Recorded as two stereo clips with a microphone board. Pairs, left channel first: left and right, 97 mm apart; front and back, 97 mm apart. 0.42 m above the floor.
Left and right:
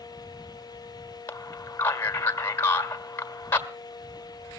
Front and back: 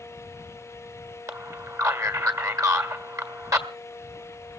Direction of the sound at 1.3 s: 145° left.